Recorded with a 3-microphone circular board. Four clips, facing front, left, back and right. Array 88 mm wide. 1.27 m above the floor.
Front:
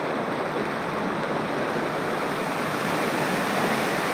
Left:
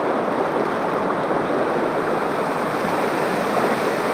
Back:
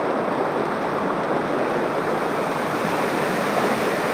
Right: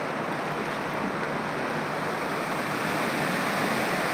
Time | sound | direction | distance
0.0 | running water | 115° left | ?